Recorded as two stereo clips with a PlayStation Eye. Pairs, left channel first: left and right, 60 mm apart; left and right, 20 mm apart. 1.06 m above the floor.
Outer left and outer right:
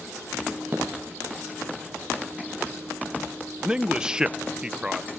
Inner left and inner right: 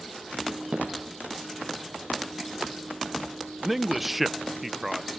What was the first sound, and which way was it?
Footsteps, 35° right (ahead or behind).